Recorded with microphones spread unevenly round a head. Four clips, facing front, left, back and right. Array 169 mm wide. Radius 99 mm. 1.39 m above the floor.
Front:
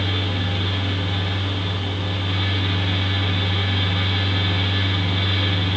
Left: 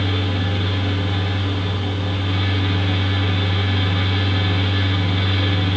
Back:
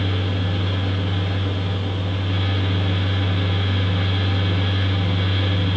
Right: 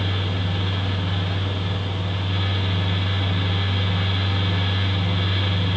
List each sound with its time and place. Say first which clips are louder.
0.0 s a fan: left 4 dB, back 1 dB; 125° left, 1.1 m